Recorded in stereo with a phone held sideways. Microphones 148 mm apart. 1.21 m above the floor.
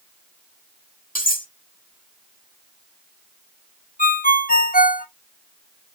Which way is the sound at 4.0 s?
75° left (ahead or behind).